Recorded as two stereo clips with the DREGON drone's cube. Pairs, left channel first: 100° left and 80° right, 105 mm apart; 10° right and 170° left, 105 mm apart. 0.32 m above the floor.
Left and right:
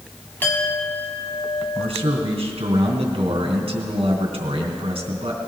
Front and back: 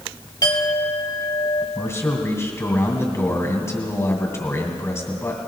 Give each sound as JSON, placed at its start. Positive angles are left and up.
{"t": 0.4, "sound": "a clink", "azimuth_deg": 30, "distance_m": 1.4}
{"t": 1.8, "sound": "a man speaking", "azimuth_deg": -75, "distance_m": 2.5}